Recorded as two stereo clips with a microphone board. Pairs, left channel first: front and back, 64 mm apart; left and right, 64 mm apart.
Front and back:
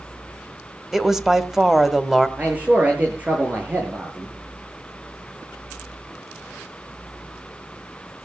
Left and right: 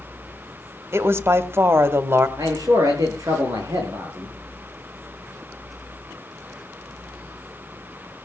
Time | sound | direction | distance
0.9 | a woman speaking | 100° right | 1.2 m
2.4 | a man speaking | 115° right | 8.5 m